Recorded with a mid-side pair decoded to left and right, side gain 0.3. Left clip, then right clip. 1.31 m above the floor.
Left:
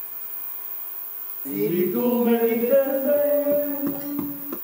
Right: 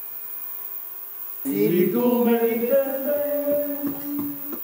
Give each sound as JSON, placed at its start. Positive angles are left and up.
{"t": 1.4, "sound": "laughter", "azimuth_deg": -55, "distance_m": 0.6}